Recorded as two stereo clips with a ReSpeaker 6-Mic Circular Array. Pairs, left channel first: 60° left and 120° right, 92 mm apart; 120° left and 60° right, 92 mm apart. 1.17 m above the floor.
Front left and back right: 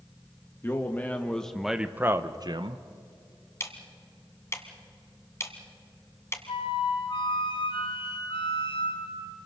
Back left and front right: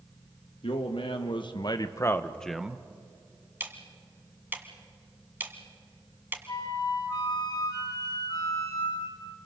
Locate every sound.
0.6 s a man speaking: 125° left, 1.8 m; by 2.8 s 135° right, 1.0 m
3.6 s ticking: 5° left, 1.7 m
6.5 s a flute: 75° left, 2.5 m